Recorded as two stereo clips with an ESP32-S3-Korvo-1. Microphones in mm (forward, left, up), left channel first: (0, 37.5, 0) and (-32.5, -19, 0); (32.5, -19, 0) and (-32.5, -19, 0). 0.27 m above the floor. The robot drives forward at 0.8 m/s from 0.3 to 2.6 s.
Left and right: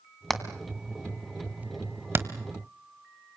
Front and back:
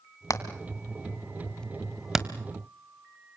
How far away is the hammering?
About 1.7 m.